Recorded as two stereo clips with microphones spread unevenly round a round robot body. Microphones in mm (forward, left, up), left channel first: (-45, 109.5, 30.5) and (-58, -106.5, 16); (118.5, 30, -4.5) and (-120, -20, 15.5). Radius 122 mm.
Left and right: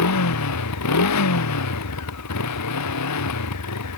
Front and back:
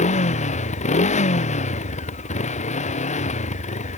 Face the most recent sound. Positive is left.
turn(degrees=75)